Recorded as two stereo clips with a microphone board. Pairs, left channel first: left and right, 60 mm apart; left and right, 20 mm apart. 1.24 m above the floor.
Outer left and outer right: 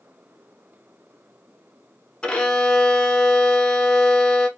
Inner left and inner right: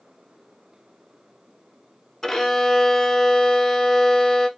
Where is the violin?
15° left (ahead or behind), 0.9 m.